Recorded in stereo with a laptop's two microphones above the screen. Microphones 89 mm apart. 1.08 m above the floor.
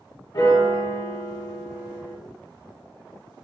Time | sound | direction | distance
0.3 | a piano | 45° left (ahead or behind) | 0.9 m